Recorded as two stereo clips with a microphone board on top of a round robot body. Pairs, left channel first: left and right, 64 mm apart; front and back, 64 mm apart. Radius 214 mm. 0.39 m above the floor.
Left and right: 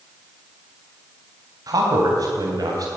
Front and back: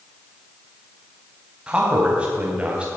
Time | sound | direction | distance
1.7 | a man speaking | 110° right | 3.5 m